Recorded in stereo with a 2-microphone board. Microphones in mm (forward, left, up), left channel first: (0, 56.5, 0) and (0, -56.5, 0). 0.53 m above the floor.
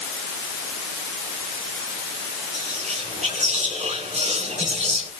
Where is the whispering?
80° right, 5 m.